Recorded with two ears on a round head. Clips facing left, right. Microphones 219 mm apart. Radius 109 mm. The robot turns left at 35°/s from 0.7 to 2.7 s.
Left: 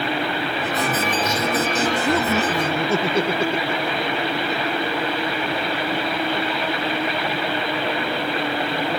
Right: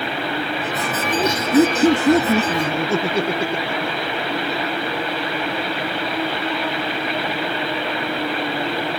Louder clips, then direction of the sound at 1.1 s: Right 5 dB; 55° right (ahead or behind).